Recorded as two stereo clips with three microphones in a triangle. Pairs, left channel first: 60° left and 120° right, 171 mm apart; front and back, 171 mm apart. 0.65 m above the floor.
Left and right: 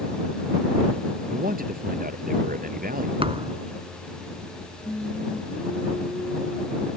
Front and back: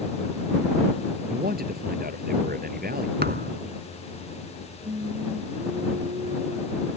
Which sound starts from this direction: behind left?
Singing, at 4.8 s.